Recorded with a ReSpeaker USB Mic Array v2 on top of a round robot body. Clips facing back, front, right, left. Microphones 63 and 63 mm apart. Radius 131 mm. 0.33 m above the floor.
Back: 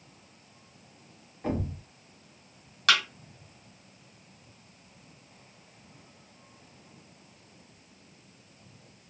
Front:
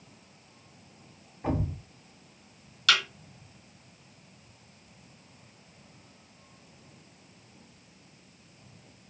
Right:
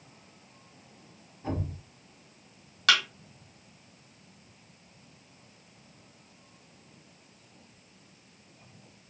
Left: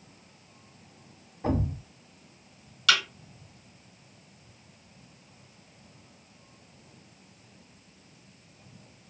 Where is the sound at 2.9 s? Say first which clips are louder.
Back 1 dB, even; 135° right, 1.4 m.